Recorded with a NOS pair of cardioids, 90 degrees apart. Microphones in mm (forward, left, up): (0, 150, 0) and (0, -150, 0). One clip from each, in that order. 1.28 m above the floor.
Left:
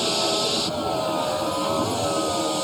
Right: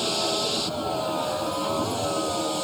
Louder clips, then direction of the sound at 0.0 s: Left 3 dB; 25° left.